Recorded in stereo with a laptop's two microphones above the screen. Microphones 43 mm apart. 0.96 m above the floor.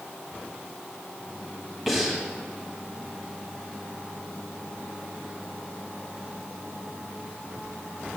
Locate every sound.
1.9 s breathing: centre (ahead or behind), 1.5 m